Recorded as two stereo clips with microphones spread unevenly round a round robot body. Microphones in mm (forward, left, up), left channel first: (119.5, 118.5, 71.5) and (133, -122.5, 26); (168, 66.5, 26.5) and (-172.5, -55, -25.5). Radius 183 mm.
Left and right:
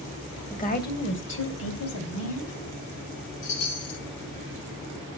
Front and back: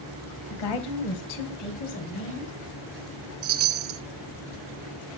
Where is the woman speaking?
30° left, 2 m; by 2.6 s 85° left, 3 m.